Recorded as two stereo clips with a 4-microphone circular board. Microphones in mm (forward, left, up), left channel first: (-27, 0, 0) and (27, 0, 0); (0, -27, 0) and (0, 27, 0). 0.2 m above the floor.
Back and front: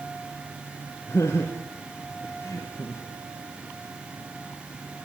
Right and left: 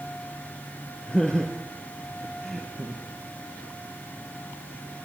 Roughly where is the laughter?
Behind.